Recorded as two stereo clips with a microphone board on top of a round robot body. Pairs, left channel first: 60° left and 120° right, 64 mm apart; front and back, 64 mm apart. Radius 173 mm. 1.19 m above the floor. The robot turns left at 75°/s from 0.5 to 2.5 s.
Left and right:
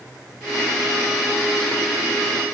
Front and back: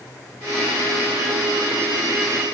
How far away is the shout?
No shout in this recording.